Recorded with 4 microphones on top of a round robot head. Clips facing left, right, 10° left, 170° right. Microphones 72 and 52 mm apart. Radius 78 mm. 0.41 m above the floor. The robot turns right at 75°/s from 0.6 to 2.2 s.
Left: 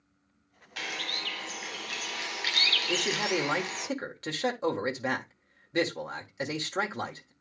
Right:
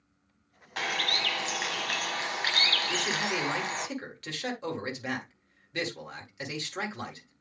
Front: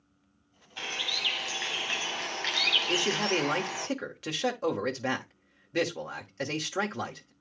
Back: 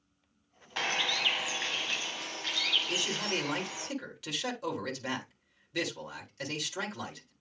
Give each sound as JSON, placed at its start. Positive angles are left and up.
{"t": 0.8, "sound": "a bird", "azimuth_deg": -145, "distance_m": 1.2}
{"t": 2.9, "sound": "a man speaking", "azimuth_deg": 40, "distance_m": 1.6}